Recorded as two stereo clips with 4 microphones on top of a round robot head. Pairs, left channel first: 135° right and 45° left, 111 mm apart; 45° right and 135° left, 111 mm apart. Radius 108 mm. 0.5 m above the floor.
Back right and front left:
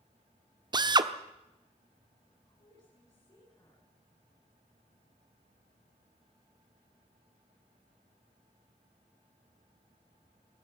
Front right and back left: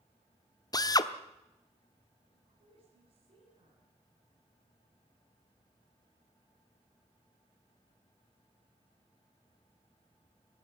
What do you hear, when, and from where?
0.7 s a drill: 5° left, 1.2 m
2.3 s a woman speaking: 170° left, 7.5 m